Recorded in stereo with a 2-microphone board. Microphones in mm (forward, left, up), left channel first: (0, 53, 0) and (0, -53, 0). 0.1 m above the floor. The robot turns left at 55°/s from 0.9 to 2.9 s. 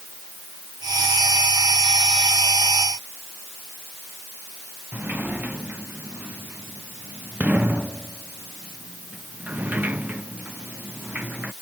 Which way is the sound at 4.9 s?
15° right (ahead or behind).